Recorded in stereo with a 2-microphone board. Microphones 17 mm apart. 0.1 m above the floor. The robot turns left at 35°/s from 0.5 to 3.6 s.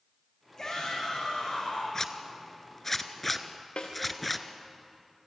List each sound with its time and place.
0.6 s a shout: 145° left, 7.5 m; by 1.8 s 100° left, 7.5 m
1.9 s a zipper: 25° left (ahead or behind), 1.1 m; by 4.5 s 5° left (ahead or behind), 1.1 m
3.8 s a snare drum: 85° left, 4.5 m